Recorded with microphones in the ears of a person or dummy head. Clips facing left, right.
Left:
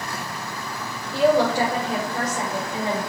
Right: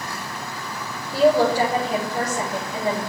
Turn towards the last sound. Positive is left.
turn(degrees=-5)  # may be behind; listen again after turning